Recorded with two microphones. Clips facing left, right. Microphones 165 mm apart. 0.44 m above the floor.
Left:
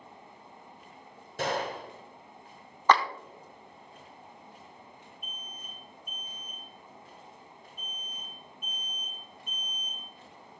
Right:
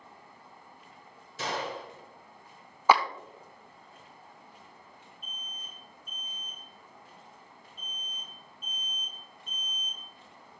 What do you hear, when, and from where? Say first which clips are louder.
1.4 s a gunshot: left 3 dB; 55° left (ahead or behind), 1.1 m
2.9 s a clap: even; 10° right (ahead or behind), 0.5 m
5.2 s an alarm: left 2 dB; 10° left (ahead or behind), 3 m